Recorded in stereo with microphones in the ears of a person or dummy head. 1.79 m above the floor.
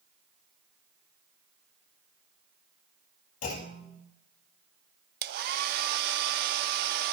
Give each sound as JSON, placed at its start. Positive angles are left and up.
{"t": 3.4, "sound": "a clunk", "side_deg": 45, "distance_m": 2.0}
{"t": 5.2, "sound": "a hair dryer", "side_deg": -55, "distance_m": 0.6}